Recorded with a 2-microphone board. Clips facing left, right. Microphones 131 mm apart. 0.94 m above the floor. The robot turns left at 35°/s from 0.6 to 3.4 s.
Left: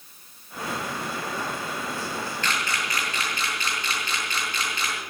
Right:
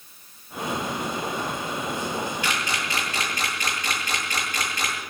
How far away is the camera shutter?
About 8 m.